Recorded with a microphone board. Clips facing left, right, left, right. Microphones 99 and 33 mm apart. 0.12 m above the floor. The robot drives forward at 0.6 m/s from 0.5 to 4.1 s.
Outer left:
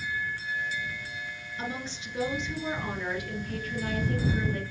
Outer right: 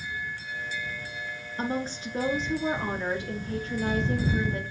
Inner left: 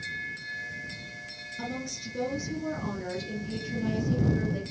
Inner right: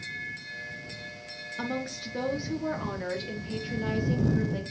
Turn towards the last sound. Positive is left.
turn(degrees=-25)  # may be behind; listen again after turning